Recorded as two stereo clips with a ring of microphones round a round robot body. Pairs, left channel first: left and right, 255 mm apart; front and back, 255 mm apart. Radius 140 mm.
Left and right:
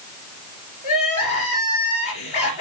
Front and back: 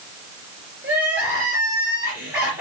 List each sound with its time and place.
0.8 s crying: 95° left, 4 m